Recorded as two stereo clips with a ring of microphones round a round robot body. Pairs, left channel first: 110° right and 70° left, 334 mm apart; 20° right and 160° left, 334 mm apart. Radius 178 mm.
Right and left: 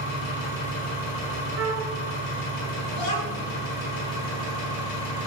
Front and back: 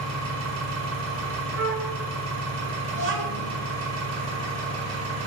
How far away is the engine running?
About 1.3 m.